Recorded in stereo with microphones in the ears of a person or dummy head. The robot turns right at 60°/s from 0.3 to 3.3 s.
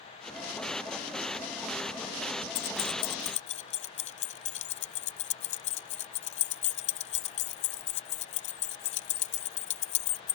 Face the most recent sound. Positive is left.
turn(degrees=35)  # may be behind; listen again after turning